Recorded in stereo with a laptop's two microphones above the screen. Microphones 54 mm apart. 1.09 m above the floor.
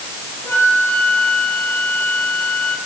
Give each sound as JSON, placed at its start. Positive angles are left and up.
{"t": 0.4, "sound": "a flute", "side_deg": 60, "distance_m": 4.5}